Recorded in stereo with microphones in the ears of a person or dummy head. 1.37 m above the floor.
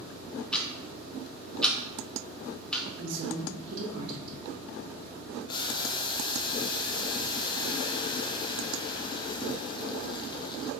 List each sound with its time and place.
0.5 s ticking: 15° left (ahead or behind), 0.6 m
3.0 s a woman speaking: 65° right (ahead or behind), 1.2 m
5.5 s boiling: 30° left (ahead or behind), 0.5 m